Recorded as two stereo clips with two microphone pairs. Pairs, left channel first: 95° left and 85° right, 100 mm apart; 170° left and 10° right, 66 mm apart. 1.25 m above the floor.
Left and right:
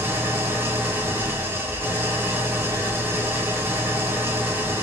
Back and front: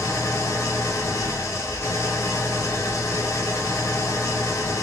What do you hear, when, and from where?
0.0 s an engine running: 150° right, 1.0 m